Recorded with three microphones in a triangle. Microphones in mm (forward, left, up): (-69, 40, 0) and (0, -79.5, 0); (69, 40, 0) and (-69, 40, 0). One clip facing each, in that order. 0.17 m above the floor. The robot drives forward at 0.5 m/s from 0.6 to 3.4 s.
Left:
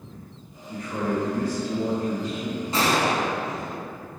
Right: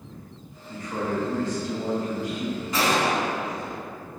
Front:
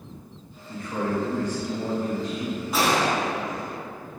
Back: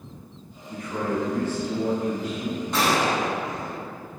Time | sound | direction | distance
0.7 | a man speaking | 30° right | 1.3 m
2.7 | a gunshot | 80° left | 0.7 m